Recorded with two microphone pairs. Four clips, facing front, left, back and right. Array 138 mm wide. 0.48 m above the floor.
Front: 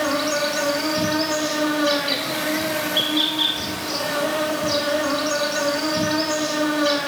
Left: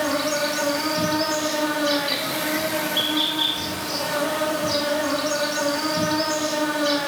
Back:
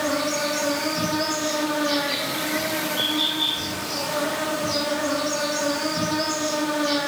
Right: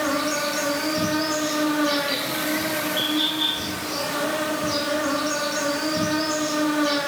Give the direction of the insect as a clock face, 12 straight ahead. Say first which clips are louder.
Left 1 dB, front 2 dB; 11 o'clock.